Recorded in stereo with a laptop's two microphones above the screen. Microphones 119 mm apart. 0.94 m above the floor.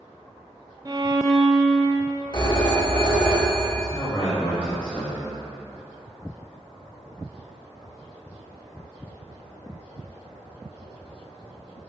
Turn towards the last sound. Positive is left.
turn(degrees=15)  # may be behind; listen again after turning